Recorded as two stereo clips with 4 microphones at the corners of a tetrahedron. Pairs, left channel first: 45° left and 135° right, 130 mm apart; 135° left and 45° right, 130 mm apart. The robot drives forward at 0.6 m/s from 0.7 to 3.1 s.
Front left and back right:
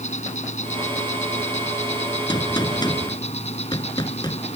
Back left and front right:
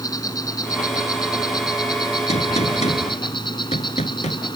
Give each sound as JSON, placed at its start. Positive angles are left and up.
{"t": 0.0, "sound": "an insect", "azimuth_deg": 70}
{"t": 2.3, "sound": "a gunshot", "azimuth_deg": 100}